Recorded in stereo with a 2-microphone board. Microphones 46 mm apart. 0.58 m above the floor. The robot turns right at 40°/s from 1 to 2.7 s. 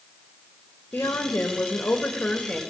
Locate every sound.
0.9 s a woman speaking: 95° left, 2.5 m; by 2.6 s 160° left, 2.5 m